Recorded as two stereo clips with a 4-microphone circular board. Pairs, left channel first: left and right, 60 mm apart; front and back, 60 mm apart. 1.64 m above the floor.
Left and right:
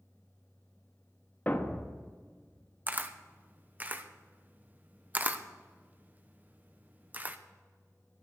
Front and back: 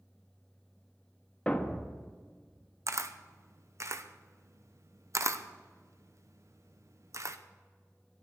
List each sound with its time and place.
1.5 s a thud: 60° left, 1.1 m
2.9 s a camera shutter: 150° right, 0.8 m